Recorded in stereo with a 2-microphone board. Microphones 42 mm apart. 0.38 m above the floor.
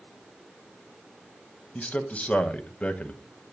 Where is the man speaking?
35° left (ahead or behind), 1.8 m.